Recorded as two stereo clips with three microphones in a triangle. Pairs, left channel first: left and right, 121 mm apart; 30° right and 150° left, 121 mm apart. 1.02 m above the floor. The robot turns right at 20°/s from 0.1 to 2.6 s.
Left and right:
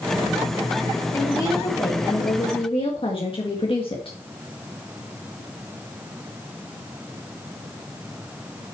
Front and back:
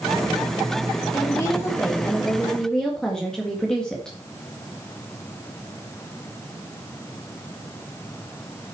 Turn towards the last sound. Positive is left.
turn(degrees=55)